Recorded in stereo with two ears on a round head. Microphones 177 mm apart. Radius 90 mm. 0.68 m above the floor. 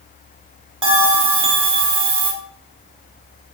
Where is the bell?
30° right (ahead or behind), 1.0 m.